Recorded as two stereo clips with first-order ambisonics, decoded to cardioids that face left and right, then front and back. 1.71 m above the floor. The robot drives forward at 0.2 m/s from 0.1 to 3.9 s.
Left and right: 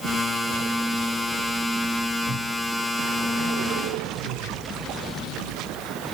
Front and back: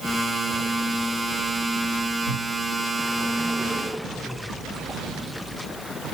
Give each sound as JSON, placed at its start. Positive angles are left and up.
{"t": 2.3, "sound": "a cupboard door", "azimuth_deg": 160, "distance_m": 4.5}